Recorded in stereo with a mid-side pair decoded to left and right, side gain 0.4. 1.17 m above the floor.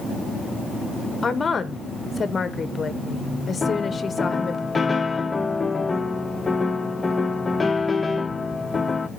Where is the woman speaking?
35° left, 1.3 m.